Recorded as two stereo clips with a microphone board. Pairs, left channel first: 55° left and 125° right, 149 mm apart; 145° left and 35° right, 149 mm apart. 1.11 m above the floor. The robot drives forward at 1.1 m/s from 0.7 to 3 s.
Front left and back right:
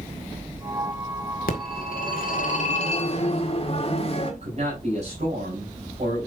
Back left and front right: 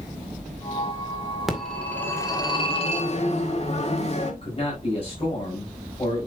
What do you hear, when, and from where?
1.5 s a phone ringing: 55° left, 2 m; by 4.3 s 105° left, 1.8 m
4.4 s a man speaking: 165° right, 5 m